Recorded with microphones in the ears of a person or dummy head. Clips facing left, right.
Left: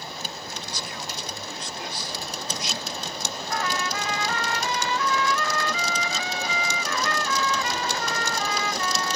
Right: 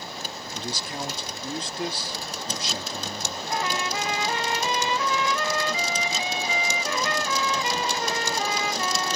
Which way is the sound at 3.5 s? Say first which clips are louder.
Right 1 dB; 15° right (ahead or behind).